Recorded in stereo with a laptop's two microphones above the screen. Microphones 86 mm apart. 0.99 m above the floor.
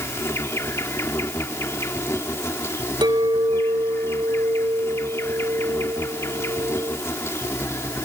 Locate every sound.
0.0 s an insect: 35° left (ahead or behind)
3.0 s a clink: 70° right (ahead or behind)